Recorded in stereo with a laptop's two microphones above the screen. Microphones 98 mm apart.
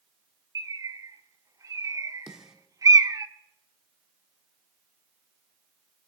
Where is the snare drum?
5° right (ahead or behind), 0.8 m.